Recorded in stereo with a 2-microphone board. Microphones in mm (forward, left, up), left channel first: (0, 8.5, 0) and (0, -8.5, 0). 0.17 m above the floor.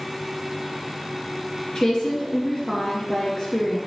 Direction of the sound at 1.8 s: 30° left (ahead or behind).